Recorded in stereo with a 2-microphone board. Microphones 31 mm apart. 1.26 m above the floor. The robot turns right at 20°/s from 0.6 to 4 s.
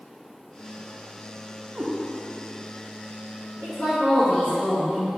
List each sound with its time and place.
1.8 s a cat meowing: 40° right (ahead or behind), 0.8 m
3.6 s a woman speaking: 50° left (ahead or behind), 1.6 m; by 5.1 s 55° left (ahead or behind), 1.6 m